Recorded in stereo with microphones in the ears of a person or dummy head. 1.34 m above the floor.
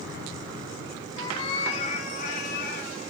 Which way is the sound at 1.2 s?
20° left (ahead or behind).